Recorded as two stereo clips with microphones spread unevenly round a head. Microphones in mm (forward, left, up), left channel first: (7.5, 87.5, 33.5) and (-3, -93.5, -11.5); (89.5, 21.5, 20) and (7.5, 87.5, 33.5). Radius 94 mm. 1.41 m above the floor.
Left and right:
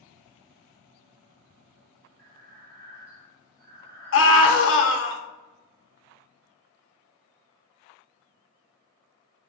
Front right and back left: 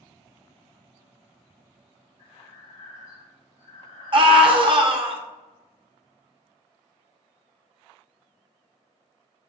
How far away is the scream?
About 0.8 m.